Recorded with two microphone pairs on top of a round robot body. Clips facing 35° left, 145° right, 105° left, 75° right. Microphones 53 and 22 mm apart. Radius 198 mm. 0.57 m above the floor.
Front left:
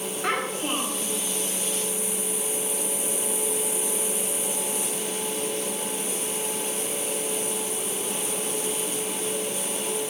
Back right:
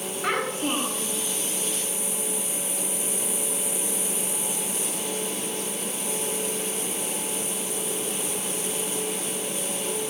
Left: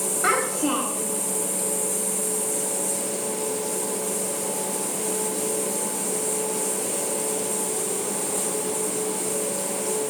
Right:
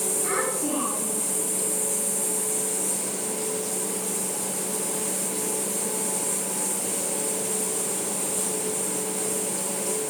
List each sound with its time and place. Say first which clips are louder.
0.2 s a child speaking: back right 1 dB, left 7 dB; 145° left, 5 m